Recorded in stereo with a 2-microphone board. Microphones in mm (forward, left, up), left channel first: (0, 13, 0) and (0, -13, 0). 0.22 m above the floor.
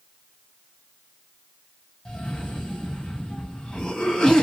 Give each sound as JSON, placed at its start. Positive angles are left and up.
{"t": 2.0, "sound": "a cough", "side_deg": 30, "distance_m": 1.1}